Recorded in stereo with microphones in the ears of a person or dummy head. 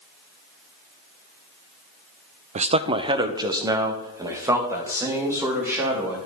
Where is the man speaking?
35° right (ahead or behind), 0.5 m; by 6.2 s 10° right (ahead or behind), 3 m.